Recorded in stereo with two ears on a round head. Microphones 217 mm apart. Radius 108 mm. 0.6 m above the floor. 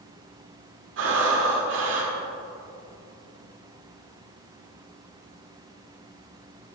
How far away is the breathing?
About 1.8 m.